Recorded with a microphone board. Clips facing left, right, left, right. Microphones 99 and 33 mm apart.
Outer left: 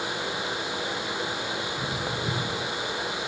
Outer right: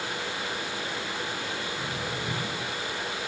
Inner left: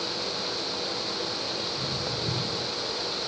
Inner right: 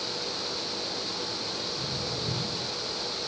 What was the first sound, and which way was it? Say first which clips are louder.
Footsteps: outer left 2 dB, inner left 2 dB; 35° left (ahead or behind).